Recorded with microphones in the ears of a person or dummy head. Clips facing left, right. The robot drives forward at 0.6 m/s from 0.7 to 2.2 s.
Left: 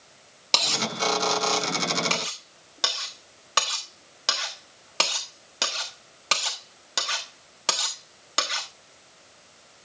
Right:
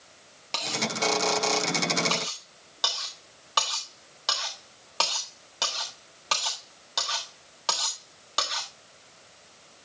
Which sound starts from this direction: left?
Cutlery clinking, at 0.5 s.